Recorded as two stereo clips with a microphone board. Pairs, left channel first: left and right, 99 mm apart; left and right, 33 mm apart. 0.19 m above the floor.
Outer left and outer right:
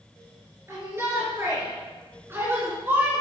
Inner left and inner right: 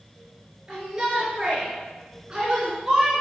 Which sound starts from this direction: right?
A shout, at 0.7 s.